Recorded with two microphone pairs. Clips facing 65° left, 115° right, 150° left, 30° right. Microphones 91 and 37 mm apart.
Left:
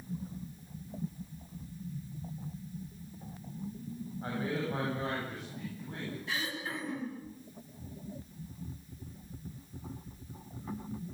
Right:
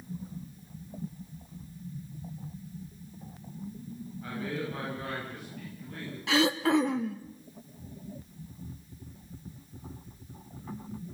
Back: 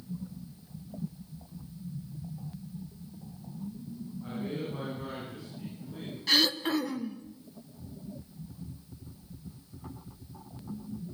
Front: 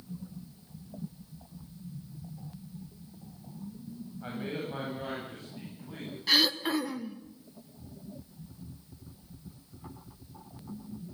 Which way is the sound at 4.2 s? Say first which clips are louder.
Left 1 dB, even; 10° left.